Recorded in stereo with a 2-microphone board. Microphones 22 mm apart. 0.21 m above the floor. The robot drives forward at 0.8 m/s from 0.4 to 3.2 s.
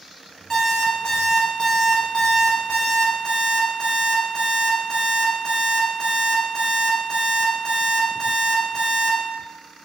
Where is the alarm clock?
30° left (ahead or behind), 1.5 m.